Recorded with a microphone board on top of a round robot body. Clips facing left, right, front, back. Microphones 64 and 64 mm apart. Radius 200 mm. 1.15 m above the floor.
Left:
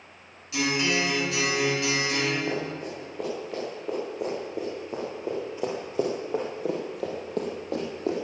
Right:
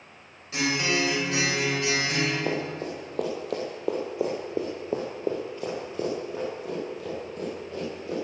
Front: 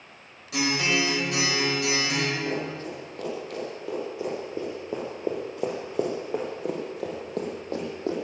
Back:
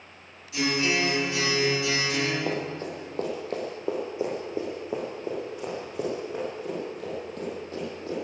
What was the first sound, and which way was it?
A guitar, 30° right.